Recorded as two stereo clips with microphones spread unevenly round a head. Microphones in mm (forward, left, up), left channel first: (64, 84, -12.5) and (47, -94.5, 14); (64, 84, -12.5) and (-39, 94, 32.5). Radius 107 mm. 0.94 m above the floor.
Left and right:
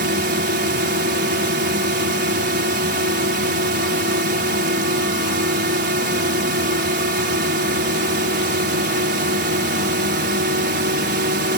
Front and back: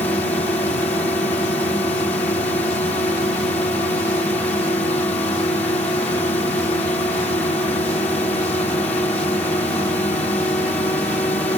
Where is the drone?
70° right.